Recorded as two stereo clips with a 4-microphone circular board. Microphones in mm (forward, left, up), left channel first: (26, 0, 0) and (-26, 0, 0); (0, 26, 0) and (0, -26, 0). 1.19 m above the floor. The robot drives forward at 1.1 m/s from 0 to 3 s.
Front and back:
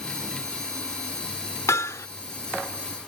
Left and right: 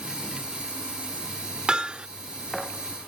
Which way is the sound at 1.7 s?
20° right.